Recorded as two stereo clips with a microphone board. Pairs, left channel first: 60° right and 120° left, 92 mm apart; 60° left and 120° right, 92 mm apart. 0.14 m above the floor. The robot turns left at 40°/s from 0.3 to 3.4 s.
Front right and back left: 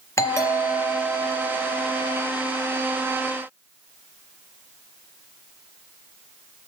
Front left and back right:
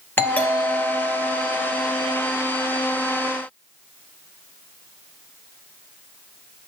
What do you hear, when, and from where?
0.2 s a doorbell: 5° right, 3 m; by 2.2 s 80° right, 3 m